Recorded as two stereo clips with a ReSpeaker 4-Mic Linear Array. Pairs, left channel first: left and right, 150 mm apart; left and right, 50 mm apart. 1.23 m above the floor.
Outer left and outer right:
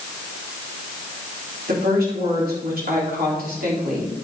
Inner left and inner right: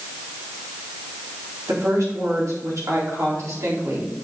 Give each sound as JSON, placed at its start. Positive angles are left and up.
{"t": 1.7, "sound": "a woman speaking", "side_deg": -80, "distance_m": 4.0}